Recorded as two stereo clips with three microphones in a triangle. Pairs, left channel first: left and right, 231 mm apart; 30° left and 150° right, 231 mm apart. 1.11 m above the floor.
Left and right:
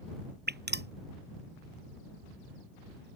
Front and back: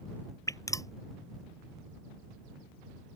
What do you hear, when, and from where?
0.5 s dripping: 45° right